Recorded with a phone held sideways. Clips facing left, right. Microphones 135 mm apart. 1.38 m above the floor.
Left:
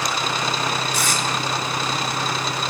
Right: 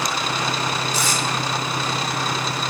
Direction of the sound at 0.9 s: 55° left (ahead or behind).